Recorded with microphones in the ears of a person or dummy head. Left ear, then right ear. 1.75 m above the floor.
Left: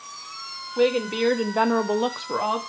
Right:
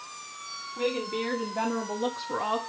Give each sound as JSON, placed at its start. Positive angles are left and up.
{"t": 0.8, "sound": "a woman speaking", "side_deg": 80, "distance_m": 1.2}